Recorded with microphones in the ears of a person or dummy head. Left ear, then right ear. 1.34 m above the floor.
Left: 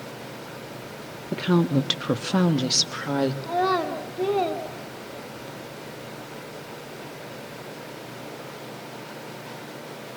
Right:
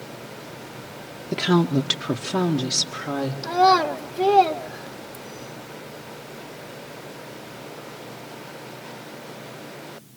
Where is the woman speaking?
25° right (ahead or behind), 0.6 m; by 3.3 s 30° left (ahead or behind), 1.6 m.